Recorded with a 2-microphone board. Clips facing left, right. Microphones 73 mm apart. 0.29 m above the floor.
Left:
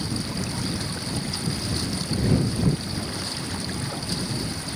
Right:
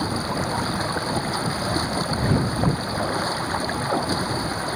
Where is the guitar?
I don't hear a guitar.